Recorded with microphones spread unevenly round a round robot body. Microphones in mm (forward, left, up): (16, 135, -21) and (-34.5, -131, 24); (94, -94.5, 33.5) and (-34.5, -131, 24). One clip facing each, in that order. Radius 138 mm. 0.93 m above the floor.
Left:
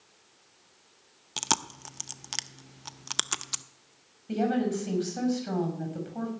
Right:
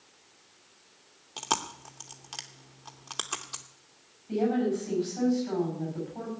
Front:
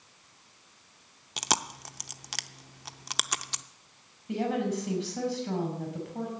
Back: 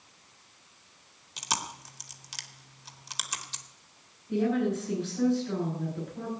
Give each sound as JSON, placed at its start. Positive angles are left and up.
{"t": 1.4, "sound": "chewing", "azimuth_deg": 40, "distance_m": 0.7}
{"t": 4.3, "sound": "a woman speaking", "azimuth_deg": 45, "distance_m": 6.5}